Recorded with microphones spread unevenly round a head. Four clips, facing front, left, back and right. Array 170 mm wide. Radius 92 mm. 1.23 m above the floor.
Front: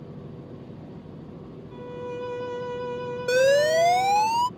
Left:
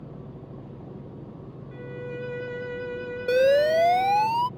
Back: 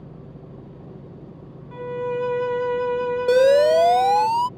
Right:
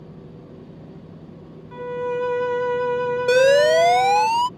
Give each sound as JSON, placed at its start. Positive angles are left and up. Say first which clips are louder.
{"t": 1.7, "sound": "a violin", "louder": "right 11 dB, back 9 dB", "azimuth_deg": -135}
{"t": 3.3, "sound": "an alarm", "louder": "right 4 dB, back 5 dB", "azimuth_deg": -135}